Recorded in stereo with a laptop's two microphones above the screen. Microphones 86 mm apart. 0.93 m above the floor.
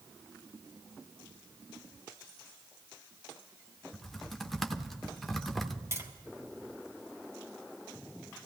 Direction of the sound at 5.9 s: 35° right (ahead or behind).